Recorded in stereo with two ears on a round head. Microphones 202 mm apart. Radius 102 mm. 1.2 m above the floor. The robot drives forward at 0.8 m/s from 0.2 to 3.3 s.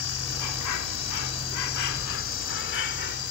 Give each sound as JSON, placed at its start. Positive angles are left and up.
{"t": 0.0, "sound": "an insect", "side_deg": 70}